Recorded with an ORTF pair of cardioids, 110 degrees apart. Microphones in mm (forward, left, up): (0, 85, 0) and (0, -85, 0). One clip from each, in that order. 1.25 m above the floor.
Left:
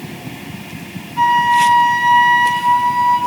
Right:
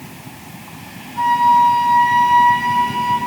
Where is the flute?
35° left, 2 m.